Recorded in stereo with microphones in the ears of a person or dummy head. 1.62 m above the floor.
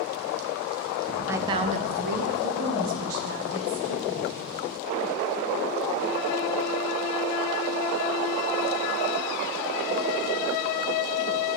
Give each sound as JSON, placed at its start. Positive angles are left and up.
{"t": 1.3, "sound": "a woman speaking", "side_deg": -10, "distance_m": 0.6}